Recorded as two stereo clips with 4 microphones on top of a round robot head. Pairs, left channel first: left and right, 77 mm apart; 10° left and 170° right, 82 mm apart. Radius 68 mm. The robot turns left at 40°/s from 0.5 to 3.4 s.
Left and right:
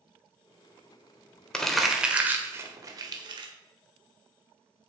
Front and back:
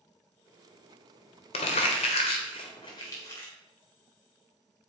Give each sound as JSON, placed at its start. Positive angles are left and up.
{"t": 1.5, "sound": "crumpling", "azimuth_deg": 10, "distance_m": 1.5}